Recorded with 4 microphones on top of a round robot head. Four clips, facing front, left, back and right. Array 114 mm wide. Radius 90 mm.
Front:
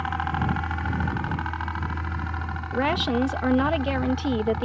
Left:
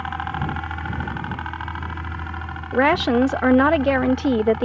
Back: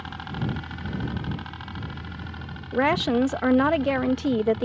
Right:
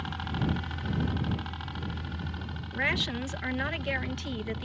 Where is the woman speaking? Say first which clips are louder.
Left 16 dB, back 2 dB; 105° left.